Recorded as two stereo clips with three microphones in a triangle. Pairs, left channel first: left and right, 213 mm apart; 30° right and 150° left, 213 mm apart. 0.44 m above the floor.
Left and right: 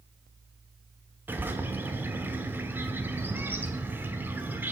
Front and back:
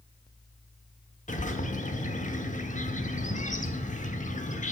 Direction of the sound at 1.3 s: 15° right.